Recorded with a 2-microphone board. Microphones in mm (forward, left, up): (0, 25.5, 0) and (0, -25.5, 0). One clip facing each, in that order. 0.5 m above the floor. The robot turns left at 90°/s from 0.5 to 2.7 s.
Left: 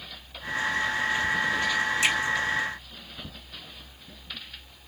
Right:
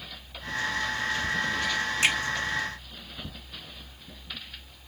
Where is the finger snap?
45° right (ahead or behind), 2 m; by 2.1 s 55° right (ahead or behind), 2 m.